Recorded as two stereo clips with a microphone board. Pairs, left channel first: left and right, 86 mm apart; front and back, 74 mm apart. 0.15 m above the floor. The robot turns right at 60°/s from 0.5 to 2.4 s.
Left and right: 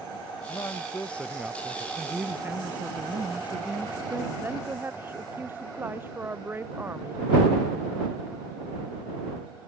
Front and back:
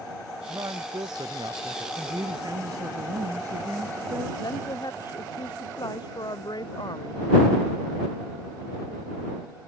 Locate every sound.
0.5 s a man speaking: 135° left; by 1.9 s 145° right
2.0 s a woman speaking: 175° left; by 4.3 s 160° right
4.4 s a woman speaking: 25° right